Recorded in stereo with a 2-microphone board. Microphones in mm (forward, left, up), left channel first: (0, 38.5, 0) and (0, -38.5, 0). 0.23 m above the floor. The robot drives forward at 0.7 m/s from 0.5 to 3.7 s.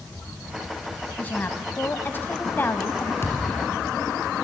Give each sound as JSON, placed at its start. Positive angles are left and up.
{"t": 1.2, "sound": "a woman speaking", "side_deg": 25, "distance_m": 1.3}
{"t": 3.2, "sound": "a thud", "side_deg": 35, "distance_m": 2.5}